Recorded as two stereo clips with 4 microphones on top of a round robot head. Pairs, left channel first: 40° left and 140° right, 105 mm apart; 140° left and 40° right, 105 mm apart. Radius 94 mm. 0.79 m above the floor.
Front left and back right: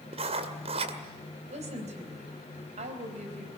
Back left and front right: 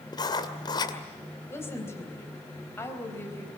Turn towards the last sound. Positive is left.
turn(degrees=-155)